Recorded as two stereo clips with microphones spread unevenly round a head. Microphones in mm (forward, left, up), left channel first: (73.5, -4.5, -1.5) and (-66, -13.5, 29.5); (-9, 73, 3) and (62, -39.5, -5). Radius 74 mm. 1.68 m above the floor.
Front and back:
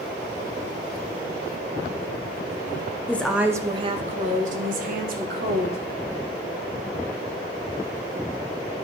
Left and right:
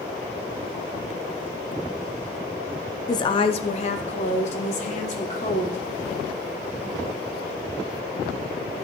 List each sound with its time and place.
3.1 s a woman speaking: 90° left, 0.6 m; by 5.8 s 170° left, 1.9 m